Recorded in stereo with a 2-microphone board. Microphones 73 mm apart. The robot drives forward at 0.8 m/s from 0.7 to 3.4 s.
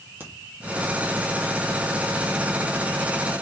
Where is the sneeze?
I don't hear a sneeze.